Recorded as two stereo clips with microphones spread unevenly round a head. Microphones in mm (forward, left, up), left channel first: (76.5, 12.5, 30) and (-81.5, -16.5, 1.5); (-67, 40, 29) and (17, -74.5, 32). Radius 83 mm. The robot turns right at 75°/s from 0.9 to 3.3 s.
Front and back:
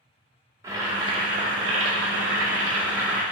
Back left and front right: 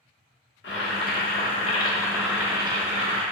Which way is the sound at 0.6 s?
115° left.